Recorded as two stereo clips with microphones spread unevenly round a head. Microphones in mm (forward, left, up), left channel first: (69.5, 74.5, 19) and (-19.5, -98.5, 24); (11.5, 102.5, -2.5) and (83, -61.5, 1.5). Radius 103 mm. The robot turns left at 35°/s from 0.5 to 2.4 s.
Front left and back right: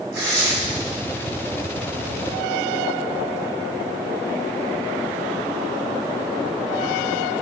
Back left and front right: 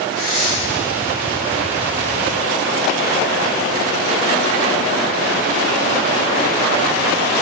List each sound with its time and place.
0.1 s tearing paper: 90° right, 3.5 m; by 0.5 s 95° right, 3.5 m